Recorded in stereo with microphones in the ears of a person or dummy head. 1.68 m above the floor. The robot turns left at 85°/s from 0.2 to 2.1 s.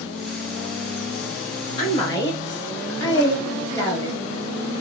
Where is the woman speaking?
35° left (ahead or behind), 0.8 m; by 4.2 s 15° left (ahead or behind), 0.8 m.